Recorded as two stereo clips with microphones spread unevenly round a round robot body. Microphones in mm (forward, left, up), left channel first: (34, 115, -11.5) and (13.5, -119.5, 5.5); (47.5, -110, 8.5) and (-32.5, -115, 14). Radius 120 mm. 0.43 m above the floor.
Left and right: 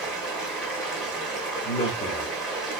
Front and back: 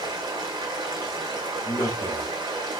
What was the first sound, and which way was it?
Running water, 175° left.